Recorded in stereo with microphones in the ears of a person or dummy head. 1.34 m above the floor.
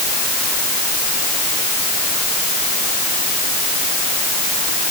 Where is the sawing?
I don't hear sawing.